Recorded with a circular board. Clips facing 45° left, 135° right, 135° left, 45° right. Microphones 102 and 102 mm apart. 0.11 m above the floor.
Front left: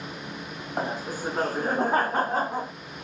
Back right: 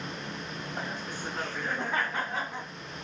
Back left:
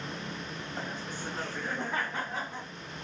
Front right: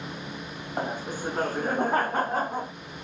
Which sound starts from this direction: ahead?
Laughter, at 0.8 s.